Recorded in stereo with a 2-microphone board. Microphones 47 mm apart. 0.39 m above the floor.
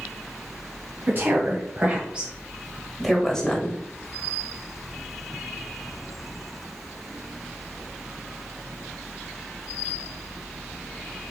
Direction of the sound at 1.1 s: 50° right (ahead or behind).